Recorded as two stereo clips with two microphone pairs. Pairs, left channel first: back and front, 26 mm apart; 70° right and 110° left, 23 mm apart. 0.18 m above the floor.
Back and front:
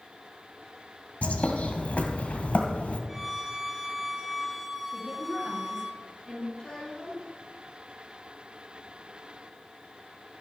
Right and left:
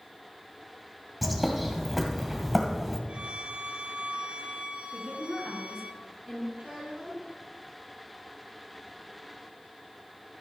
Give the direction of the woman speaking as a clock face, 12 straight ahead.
11 o'clock.